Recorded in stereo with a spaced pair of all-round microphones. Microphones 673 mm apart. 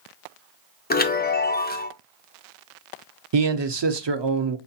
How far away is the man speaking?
About 0.6 m.